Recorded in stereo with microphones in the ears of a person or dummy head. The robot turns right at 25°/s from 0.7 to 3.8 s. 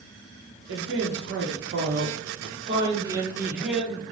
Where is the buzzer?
No buzzer in this recording.